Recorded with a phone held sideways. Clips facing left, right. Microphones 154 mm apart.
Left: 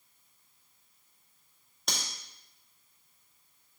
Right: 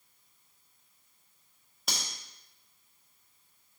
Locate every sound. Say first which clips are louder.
1.9 s cutlery clinking: left 1 dB; 5° right (ahead or behind), 1.3 m